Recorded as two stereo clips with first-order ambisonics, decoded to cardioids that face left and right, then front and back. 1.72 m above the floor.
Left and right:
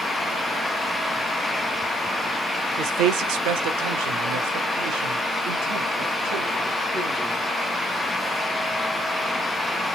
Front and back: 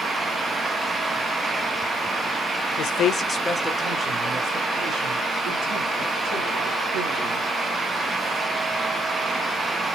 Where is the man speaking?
40° right, 0.6 m; by 7.5 s 130° right, 3 m.